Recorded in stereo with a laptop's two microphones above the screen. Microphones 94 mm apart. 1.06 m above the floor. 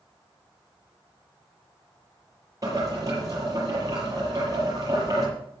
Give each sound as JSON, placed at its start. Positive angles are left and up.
{"t": 2.6, "sound": "boiling", "side_deg": -35, "distance_m": 7.0}